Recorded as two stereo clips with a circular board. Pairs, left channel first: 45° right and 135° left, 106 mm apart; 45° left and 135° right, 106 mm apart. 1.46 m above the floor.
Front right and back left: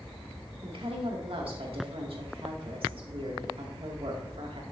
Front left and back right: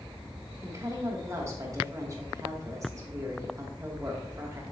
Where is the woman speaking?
165° left, 2.5 m.